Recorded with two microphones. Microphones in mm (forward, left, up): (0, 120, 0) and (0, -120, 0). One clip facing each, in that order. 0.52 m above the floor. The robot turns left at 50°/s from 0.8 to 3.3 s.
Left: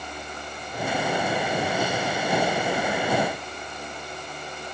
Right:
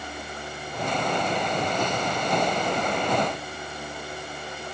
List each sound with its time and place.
Only background noise.